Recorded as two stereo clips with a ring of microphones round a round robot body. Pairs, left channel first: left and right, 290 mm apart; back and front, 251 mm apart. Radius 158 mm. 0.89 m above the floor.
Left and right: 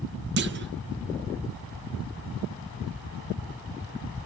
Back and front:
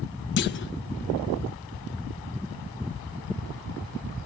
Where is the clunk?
140° right, 0.6 m.